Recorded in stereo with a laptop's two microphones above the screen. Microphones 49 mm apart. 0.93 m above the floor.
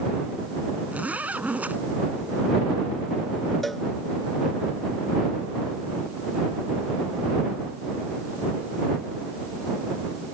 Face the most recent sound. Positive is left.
turn(degrees=5)  # may be behind; listen again after turning